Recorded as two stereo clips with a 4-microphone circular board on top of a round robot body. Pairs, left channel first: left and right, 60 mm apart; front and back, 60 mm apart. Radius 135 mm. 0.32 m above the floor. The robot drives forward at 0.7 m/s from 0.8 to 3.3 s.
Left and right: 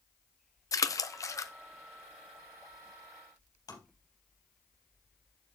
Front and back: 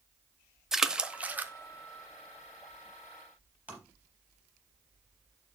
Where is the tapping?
110° left, 3.5 m.